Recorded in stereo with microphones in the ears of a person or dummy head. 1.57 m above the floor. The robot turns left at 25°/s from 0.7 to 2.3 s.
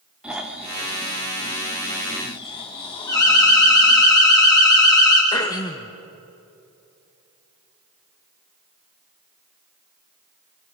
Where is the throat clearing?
20° left (ahead or behind), 1.0 m.